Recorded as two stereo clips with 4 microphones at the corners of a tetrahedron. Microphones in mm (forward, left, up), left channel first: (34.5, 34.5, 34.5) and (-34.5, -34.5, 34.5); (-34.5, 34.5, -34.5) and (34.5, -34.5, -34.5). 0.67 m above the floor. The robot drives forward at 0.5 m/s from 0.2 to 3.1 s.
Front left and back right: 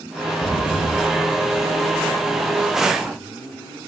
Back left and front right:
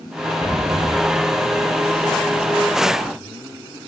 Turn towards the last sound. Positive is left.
turn(degrees=70)